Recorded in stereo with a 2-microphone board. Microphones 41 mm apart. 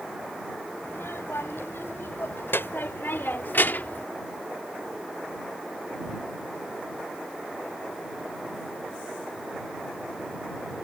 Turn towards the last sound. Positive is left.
turn(degrees=45)  # may be behind; listen again after turning